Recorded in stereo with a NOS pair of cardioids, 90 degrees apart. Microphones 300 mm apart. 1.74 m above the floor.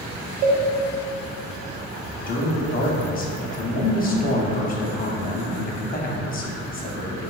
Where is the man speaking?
30° left, 0.6 m.